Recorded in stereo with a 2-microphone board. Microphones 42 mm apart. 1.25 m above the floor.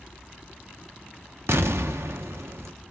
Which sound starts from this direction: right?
An explosion, at 1.5 s.